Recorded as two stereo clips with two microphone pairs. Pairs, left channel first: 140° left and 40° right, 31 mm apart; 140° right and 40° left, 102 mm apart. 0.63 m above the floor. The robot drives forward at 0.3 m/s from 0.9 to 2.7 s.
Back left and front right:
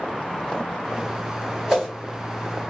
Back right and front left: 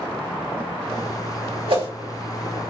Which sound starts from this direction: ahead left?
A whoosh, at 1.7 s.